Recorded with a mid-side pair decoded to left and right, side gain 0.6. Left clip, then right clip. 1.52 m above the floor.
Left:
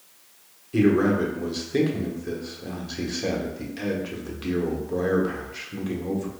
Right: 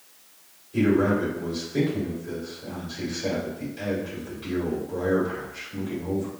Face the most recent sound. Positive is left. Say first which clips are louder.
# left 1 dB
turn(degrees=60)